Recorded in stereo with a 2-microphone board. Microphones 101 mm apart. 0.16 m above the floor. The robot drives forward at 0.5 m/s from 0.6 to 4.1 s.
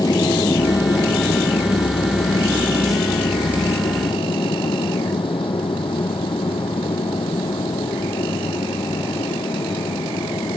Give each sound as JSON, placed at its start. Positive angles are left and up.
{"t": 0.0, "sound": "an aircraft", "side_deg": 40}